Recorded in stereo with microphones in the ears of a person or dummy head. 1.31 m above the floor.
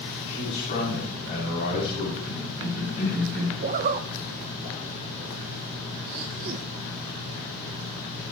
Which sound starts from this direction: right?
A zipper, at 3.6 s.